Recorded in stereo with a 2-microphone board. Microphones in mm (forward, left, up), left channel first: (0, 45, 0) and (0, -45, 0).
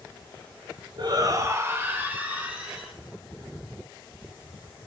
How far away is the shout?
About 1.3 m.